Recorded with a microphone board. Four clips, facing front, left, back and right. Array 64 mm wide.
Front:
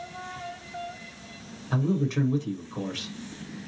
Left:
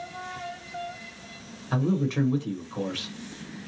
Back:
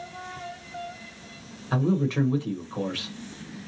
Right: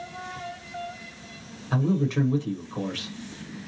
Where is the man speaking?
175° left, 0.8 m.